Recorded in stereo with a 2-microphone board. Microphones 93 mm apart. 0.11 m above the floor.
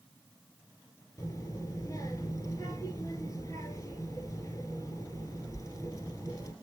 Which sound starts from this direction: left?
A child speaking, at 1.2 s.